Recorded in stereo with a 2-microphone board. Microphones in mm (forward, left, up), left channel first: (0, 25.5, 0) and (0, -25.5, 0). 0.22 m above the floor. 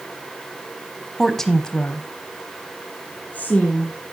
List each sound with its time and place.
1.2 s a woman speaking: centre (ahead or behind), 1.1 m; by 3.9 s 35° left (ahead or behind), 3 m